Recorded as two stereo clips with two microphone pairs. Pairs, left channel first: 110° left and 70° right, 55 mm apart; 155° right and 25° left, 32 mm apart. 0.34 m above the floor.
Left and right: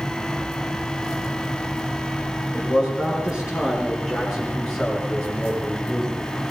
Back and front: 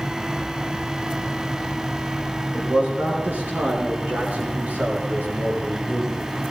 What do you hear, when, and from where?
2.5 s a man speaking: straight ahead, 6 m; by 6.3 s 40° left, 6.5 m